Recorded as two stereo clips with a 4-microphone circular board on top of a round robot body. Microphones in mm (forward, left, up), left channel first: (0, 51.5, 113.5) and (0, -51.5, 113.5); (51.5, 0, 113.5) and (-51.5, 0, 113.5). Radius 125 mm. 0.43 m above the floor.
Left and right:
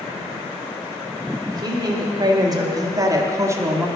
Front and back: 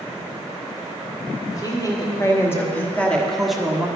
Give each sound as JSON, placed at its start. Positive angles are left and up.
{"t": 1.5, "sound": "a woman speaking", "azimuth_deg": -50, "distance_m": 1.9}